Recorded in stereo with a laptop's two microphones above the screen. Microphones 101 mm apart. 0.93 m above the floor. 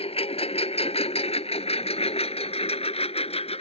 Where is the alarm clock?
I don't hear an alarm clock.